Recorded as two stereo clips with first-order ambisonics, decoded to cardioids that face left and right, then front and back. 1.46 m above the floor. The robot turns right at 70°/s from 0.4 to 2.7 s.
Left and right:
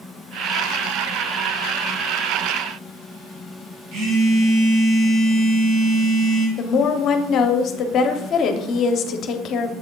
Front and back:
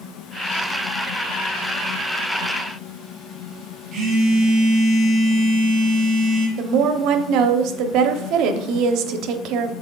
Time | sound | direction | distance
3.9 | a phone buzzing | 130° right | 1.9 m
6.6 | a woman speaking | 145° left | 0.7 m